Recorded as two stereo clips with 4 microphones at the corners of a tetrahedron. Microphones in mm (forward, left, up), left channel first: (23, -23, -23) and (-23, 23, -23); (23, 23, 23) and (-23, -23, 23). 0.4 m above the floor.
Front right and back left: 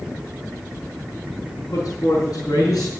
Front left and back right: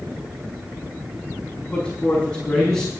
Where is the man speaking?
30° right, 4.5 m; by 2.9 s 45° right, 4 m.